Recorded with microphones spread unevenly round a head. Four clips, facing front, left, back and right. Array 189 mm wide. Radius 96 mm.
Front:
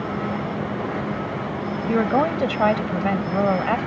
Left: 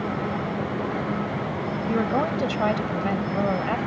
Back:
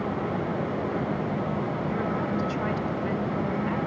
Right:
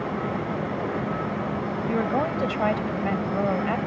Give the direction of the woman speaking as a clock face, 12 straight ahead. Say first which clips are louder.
Left 1 dB, front 13 dB; 12 o'clock.